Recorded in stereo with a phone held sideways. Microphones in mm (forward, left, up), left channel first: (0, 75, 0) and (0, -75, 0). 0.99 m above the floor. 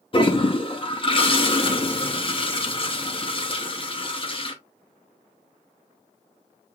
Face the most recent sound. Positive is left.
turn(degrees=35)  # may be behind; listen again after turning